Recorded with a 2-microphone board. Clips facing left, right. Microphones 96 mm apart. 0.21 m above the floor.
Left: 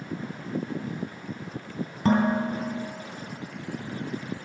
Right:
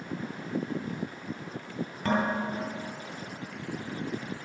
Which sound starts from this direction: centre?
Dishes clattering, at 2.0 s.